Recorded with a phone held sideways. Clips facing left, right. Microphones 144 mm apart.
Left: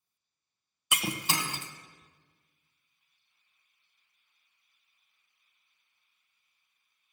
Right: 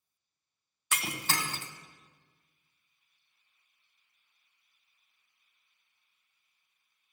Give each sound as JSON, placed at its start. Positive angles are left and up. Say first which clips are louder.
{"t": 0.9, "sound": "breaking glass", "louder": "left 2 dB", "side_deg": 15, "distance_m": 0.9}